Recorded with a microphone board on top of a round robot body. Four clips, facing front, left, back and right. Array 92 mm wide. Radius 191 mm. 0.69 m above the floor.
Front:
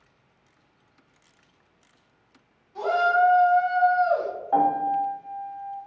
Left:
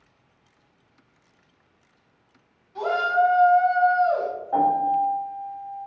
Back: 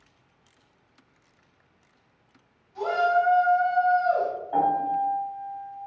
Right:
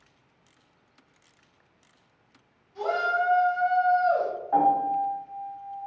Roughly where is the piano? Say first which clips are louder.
Left 2 dB, front 2 dB; ahead.